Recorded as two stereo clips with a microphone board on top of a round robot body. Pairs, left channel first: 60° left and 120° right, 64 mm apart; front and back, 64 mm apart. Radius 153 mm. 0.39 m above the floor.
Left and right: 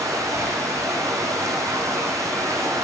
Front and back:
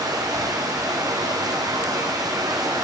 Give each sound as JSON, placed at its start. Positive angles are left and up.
{"t": 0.0, "sound": "running water", "azimuth_deg": -160, "distance_m": 7.0}